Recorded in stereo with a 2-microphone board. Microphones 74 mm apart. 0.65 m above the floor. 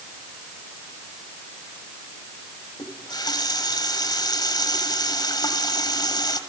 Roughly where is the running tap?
Left.